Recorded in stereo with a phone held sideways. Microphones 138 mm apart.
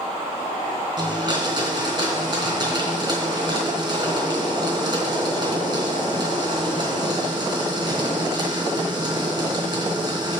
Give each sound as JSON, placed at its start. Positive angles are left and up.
{"t": 1.0, "sound": "a blender", "side_deg": -35, "distance_m": 3.0}